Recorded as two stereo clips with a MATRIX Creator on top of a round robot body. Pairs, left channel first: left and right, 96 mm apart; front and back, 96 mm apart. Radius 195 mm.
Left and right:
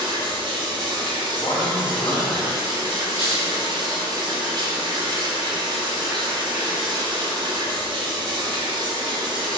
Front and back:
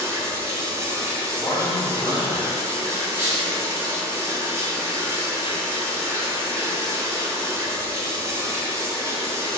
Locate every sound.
0.0 s running water: 120° right, 0.7 m
1.4 s a man speaking: 55° left, 1.6 m
3.1 s a squeak: 115° right, 1.5 m